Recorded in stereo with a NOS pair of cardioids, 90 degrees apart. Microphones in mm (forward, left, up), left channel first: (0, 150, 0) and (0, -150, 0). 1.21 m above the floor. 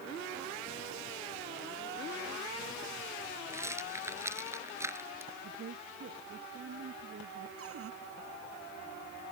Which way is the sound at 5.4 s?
50° right.